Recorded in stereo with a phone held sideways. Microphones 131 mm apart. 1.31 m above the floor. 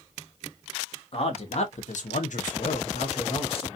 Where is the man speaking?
50° left (ahead or behind), 1.0 m; by 3.7 s 45° left (ahead or behind), 1.0 m.